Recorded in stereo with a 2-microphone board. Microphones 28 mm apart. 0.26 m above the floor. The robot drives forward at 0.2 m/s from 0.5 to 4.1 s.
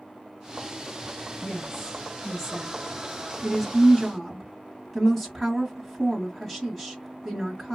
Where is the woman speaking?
10° left (ahead or behind), 1.0 m; by 7.8 s 5° left (ahead or behind), 1.3 m.